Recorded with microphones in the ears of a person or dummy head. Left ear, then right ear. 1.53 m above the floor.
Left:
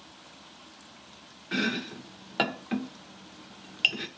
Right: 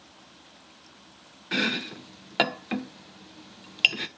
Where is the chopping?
25° right (ahead or behind), 0.8 m.